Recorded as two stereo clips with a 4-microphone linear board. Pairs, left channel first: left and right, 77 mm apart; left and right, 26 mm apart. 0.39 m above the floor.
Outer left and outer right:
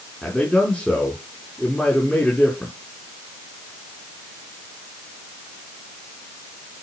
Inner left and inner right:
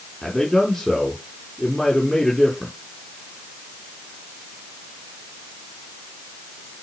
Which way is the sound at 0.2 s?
10° left (ahead or behind).